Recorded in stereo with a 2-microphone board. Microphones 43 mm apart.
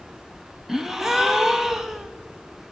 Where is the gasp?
15° right (ahead or behind), 0.8 m.